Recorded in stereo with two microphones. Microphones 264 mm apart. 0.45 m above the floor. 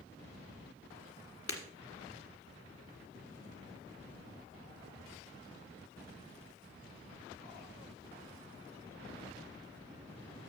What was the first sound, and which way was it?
Breaking glass, 55° left (ahead or behind).